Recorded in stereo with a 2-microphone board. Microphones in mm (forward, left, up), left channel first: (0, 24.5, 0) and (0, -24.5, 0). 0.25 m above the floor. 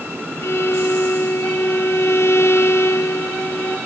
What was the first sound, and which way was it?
A violin, 65° left (ahead or behind).